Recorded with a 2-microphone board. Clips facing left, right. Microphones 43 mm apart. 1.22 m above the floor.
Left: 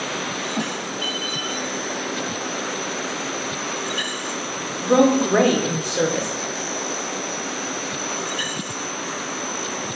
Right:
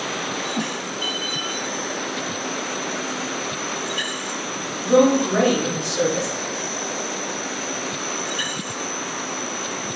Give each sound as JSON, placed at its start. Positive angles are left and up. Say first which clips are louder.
{"t": 4.8, "sound": "a woman speaking", "louder": "even", "side_deg": 20, "distance_m": 0.7}